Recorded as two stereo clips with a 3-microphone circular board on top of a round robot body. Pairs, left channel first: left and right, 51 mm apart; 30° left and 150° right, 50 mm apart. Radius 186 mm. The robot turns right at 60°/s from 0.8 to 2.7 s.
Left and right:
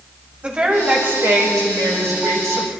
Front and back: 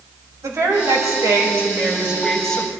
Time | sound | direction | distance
0.4 | a woman speaking | 155° right | 4.5 m